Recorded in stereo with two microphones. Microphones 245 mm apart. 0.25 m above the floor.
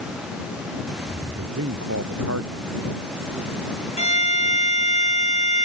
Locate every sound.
1.4 s a man speaking: 85° right
4.0 s a violin: 30° left (ahead or behind)